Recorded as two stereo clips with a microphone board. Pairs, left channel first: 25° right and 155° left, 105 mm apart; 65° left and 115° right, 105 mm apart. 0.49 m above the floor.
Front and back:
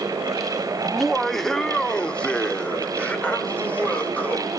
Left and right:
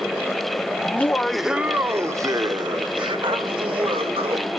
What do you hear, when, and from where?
0.8 s laughter: 75° left, 0.7 m; by 4.5 s 95° right, 1.8 m